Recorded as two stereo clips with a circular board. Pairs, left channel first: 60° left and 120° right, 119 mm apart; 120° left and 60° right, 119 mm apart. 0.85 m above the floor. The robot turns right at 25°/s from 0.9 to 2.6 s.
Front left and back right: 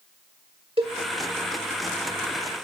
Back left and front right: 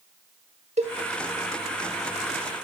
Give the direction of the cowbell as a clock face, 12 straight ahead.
3 o'clock.